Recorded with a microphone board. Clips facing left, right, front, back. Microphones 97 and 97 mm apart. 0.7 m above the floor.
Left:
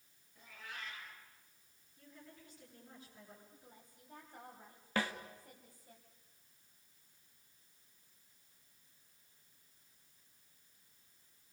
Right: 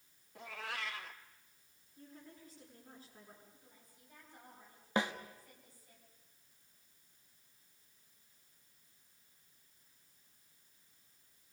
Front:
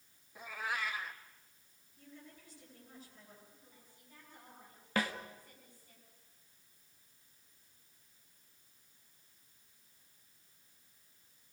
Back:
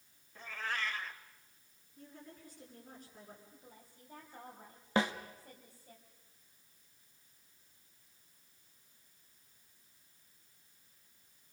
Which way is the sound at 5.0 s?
140° right.